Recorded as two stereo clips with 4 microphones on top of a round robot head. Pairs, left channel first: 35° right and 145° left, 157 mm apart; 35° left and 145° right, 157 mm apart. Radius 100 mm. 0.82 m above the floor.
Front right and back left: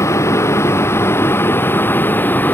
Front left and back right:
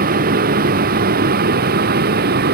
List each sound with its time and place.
0.0 s a vehicle: 110° right; by 2.5 s 115° right